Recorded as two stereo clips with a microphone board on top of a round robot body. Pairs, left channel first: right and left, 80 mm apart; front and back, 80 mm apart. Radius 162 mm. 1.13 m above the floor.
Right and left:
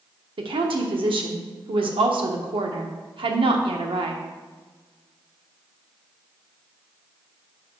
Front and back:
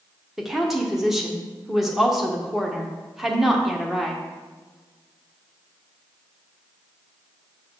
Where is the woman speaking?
90° left, 0.9 m.